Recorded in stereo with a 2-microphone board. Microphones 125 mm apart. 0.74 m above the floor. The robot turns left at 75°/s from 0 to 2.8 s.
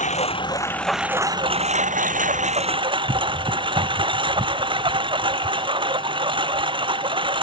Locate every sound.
0.0 s a lawn mower: 70° left; by 7.4 s 140° right